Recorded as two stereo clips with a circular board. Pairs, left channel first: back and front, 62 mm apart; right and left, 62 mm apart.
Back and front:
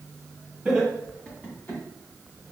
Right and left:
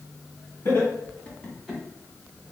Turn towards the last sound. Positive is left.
turn(degrees=180)